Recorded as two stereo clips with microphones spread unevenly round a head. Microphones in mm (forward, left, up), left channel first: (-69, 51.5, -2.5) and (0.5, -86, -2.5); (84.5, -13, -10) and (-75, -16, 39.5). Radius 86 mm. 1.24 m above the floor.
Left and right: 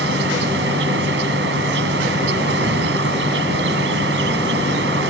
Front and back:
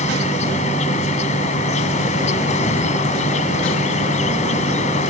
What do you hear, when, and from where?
0.0 s an insect: 45° right